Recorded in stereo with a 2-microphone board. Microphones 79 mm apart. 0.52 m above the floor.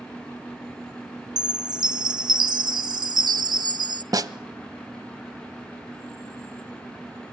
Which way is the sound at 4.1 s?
50° right (ahead or behind).